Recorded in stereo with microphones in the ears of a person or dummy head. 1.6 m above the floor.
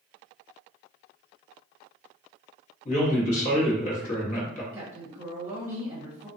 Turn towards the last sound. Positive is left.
turn(degrees=-25)  # may be behind; listen again after turning